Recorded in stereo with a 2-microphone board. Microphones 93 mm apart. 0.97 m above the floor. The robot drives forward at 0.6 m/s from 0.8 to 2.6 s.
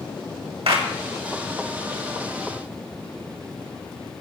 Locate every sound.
0.7 s a clap: 75° right (ahead or behind), 2 m